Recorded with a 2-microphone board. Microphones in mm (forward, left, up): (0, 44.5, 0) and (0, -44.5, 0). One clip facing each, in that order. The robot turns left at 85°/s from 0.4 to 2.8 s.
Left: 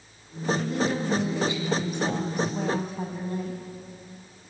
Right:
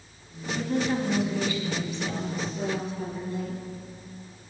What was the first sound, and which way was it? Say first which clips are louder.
A woman speaking: right 3 dB; 120° right.